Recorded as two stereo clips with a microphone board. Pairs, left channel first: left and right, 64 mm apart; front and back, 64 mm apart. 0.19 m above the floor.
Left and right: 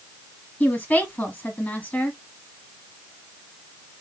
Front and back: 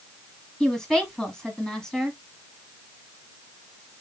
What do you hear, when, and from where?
0.6 s a woman speaking: 70° left, 1.5 m